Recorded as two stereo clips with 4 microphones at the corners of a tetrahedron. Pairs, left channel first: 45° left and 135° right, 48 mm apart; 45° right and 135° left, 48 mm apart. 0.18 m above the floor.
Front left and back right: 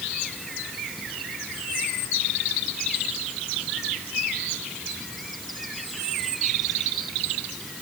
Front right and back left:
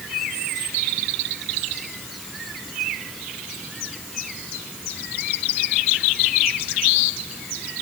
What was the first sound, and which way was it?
Only background noise.